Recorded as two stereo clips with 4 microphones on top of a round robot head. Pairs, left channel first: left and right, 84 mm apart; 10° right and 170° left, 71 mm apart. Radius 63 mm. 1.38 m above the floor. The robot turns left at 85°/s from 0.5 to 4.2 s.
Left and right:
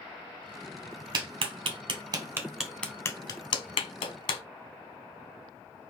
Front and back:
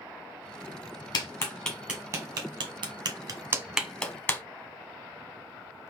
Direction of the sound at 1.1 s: 50° right.